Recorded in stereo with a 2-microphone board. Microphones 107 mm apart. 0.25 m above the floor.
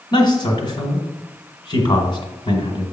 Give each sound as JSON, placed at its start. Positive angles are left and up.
{"t": 0.1, "sound": "a man speaking", "side_deg": 50, "distance_m": 2.0}